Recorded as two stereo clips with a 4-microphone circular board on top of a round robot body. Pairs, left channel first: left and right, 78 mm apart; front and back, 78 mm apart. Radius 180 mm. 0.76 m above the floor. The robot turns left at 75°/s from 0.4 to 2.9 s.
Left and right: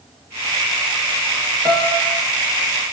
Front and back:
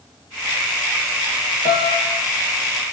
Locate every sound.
1.6 s a piano: 175° left, 4 m; by 2.2 s 135° left, 4 m